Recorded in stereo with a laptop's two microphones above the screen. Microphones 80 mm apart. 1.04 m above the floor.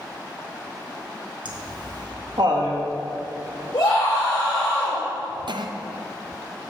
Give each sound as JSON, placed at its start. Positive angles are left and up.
{"t": 1.4, "sound": "laughter", "side_deg": -70, "distance_m": 1.6}
{"t": 3.7, "sound": "a scream", "side_deg": 80, "distance_m": 1.5}
{"t": 5.5, "sound": "a cough", "side_deg": -75, "distance_m": 0.6}